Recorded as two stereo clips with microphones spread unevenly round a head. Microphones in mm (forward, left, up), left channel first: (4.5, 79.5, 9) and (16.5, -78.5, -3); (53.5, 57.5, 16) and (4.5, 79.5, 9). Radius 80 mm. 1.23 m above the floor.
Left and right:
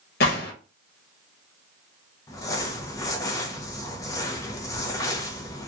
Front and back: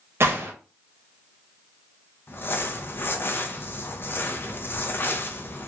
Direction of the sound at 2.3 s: 25° left.